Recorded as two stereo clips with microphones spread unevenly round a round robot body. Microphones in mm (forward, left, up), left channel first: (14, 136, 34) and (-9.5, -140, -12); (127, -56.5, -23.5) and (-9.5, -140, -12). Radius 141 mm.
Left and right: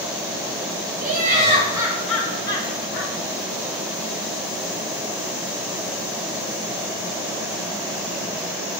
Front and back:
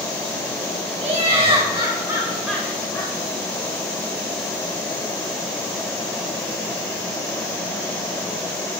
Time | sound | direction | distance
1.0 | laughter | 120° right | 1.1 m